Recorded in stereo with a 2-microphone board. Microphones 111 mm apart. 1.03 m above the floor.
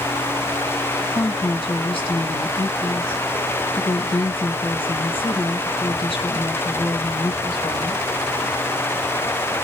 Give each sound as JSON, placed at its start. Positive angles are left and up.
{"t": 1.1, "sound": "a woman speaking", "side_deg": 60, "distance_m": 1.3}